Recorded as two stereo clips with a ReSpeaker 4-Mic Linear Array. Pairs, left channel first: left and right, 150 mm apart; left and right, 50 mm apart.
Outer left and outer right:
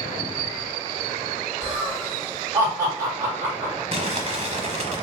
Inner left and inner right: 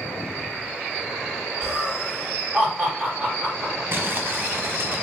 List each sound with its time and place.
1.6 s laughter: 20° right (ahead or behind), 2.5 m
3.9 s crumpling: 50° right (ahead or behind), 1.0 m